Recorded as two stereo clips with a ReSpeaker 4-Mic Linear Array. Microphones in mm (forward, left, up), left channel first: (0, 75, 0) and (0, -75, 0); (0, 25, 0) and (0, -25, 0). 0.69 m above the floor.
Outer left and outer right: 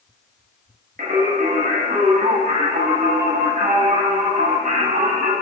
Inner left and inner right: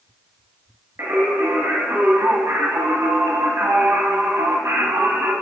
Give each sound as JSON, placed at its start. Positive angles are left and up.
{"t": 1.0, "sound": "singing", "side_deg": -60, "distance_m": 1.6}